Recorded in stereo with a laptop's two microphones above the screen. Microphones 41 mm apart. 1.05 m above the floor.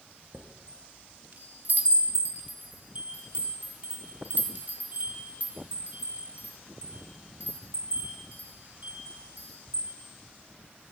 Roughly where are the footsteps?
No footsteps in this recording.